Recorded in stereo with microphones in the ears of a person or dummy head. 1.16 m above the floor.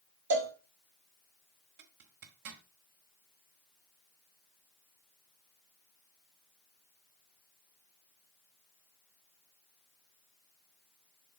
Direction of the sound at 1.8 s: 55° right (ahead or behind).